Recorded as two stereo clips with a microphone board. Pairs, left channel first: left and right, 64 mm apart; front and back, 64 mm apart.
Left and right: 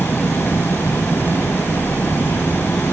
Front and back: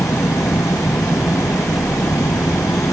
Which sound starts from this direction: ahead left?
An engine running, at 0.0 s.